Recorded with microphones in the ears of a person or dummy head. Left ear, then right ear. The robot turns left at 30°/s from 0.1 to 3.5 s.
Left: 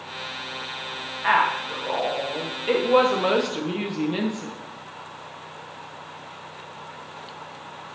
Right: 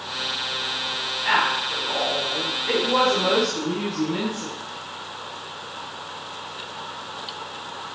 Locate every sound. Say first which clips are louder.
1.2 s a woman speaking: left 1 dB; 125° left, 1.4 m; by 4.5 s 60° left, 1.4 m